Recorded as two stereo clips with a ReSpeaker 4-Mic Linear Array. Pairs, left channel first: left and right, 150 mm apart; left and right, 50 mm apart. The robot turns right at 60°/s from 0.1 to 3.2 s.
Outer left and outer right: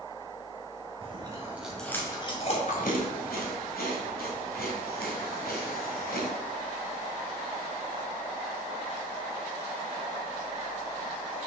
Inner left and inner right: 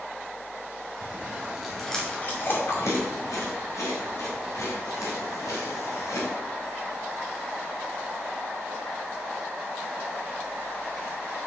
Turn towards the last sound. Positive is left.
turn(degrees=85)